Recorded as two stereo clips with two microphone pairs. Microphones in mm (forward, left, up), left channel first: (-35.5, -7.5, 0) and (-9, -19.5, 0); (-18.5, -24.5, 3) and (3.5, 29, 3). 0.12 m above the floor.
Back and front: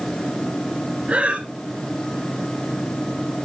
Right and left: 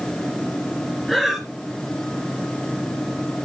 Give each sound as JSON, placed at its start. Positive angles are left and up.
{"t": 1.1, "sound": "breathing", "azimuth_deg": -20, "distance_m": 1.9}